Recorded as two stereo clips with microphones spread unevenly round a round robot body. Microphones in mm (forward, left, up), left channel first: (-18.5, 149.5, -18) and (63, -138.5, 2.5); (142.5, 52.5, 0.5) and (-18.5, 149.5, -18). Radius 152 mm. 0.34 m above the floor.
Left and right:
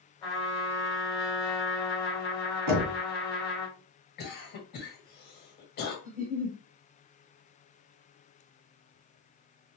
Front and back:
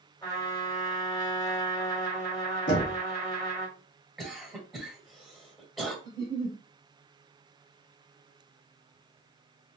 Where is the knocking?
60° right, 2 m.